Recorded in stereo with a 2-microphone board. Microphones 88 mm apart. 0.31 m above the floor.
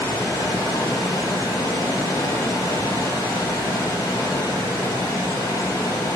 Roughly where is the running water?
Left.